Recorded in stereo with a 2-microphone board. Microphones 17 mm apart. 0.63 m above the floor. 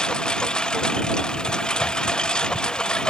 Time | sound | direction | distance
0.0 | a lawn mower | 55° left (ahead or behind) | ?